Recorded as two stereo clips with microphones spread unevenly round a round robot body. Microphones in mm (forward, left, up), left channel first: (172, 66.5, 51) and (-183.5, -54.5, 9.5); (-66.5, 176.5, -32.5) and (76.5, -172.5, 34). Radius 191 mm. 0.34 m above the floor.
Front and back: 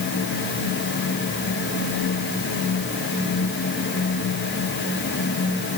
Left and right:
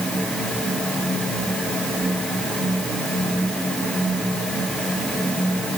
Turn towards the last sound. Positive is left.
No sound to turn to.